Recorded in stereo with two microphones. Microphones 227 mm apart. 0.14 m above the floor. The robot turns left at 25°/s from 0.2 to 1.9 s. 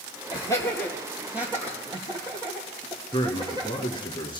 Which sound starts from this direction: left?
A man speaking, at 3.1 s.